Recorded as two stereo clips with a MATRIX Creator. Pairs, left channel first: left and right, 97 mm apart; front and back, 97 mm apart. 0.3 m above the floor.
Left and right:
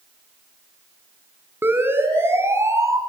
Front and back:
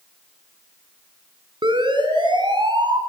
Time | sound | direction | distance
1.6 | a siren | 155° right | 4 m